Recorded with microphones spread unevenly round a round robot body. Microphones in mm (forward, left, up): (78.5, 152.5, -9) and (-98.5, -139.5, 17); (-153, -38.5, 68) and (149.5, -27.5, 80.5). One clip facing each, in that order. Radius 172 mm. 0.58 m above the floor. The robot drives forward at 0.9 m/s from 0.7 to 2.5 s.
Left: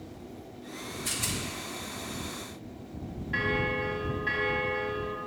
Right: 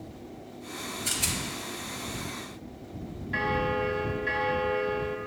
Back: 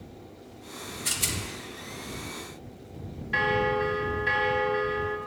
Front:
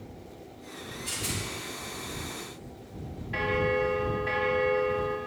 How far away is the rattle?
About 0.6 m.